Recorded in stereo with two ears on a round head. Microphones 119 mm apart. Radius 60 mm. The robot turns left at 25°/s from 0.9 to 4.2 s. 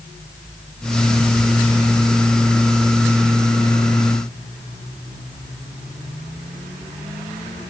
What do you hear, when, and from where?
Only background noise.